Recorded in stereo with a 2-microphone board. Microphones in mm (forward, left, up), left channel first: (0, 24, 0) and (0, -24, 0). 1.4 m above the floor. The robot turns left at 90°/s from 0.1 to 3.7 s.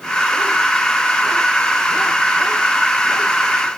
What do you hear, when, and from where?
Only background noise.